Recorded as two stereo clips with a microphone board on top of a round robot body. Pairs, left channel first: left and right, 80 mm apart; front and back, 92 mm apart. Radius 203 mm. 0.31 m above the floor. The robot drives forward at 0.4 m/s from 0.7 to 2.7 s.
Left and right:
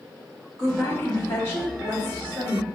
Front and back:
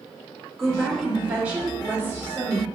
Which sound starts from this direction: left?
A woman speaking, at 0.6 s.